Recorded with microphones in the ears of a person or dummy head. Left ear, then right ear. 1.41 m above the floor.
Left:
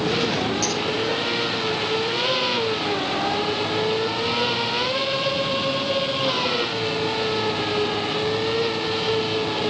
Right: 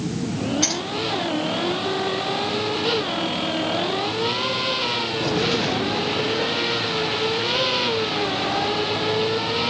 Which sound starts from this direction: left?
A finger snap, at 0.6 s.